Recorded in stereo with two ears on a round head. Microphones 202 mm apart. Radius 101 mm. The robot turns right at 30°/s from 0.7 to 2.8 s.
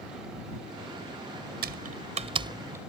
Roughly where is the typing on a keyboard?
Right.